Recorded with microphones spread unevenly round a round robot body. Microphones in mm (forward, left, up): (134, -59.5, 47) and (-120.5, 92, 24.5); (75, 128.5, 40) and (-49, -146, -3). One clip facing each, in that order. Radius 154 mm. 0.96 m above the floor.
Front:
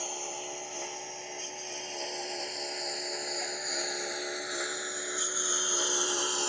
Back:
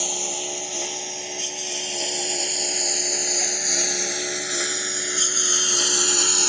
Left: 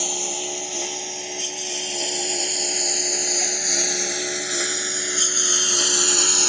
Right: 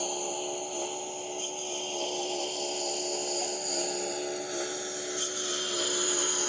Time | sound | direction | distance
0.0 | a lawn mower | 115° left | ?